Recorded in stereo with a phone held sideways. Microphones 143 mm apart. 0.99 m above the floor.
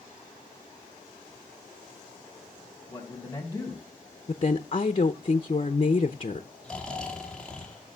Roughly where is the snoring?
Centre.